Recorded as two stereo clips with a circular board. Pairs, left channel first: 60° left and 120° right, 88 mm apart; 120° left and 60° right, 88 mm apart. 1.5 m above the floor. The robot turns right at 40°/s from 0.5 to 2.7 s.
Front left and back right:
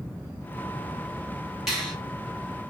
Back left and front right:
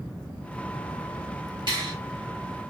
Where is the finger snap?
35° right, 1.9 m; by 1.9 s 25° right, 1.9 m.